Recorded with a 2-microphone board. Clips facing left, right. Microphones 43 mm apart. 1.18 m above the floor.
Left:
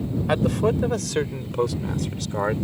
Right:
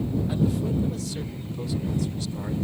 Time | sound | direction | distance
0.3 | a man speaking | 85° left | ?